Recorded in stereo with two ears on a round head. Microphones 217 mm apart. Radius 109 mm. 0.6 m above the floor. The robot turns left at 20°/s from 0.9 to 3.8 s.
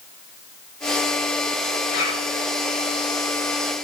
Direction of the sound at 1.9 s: 35° left (ahead or behind).